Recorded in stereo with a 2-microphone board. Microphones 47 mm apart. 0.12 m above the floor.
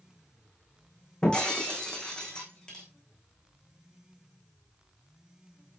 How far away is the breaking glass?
About 5 m.